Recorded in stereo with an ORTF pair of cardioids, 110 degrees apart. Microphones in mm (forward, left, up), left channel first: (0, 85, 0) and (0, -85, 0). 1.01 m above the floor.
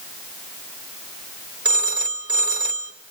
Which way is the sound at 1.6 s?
30° right.